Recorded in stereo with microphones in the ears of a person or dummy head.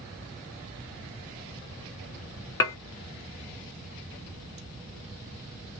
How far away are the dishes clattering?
About 0.6 m.